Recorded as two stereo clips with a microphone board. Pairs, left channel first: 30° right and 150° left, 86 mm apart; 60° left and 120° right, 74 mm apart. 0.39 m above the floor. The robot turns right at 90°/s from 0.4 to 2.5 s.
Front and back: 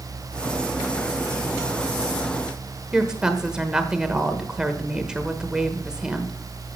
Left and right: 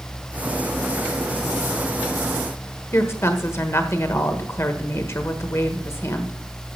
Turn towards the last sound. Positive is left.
turn(degrees=75)